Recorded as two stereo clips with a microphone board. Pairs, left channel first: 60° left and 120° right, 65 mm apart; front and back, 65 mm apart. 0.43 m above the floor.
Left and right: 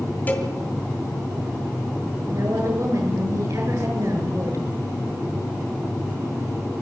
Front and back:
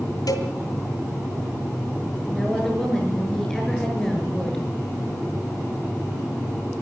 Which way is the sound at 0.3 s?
Straight ahead.